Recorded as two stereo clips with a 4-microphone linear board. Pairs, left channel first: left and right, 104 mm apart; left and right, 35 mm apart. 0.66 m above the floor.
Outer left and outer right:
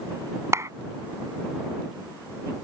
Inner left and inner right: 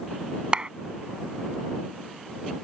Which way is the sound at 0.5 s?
30° right (ahead or behind).